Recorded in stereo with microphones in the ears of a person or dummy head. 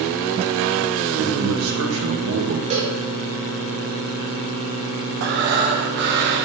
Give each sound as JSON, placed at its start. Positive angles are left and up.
{"t": 1.2, "sound": "a man speaking", "side_deg": -70, "distance_m": 1.8}
{"t": 2.7, "sound": "a cowbell", "side_deg": -35, "distance_m": 2.0}
{"t": 5.2, "sound": "breathing", "side_deg": -55, "distance_m": 1.3}